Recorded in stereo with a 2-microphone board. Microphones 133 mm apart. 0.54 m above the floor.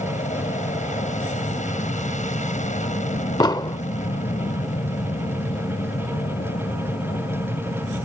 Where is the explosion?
30° left (ahead or behind).